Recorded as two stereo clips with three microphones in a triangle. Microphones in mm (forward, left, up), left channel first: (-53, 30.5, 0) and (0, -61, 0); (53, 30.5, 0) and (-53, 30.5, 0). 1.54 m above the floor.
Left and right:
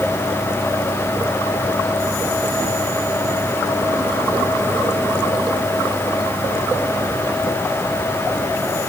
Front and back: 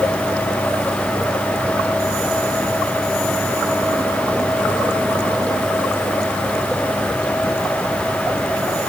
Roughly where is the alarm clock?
I don't hear an alarm clock.